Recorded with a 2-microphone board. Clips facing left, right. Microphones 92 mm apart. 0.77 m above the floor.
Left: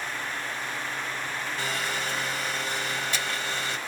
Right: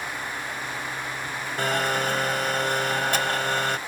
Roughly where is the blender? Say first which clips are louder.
Right 9 dB; right.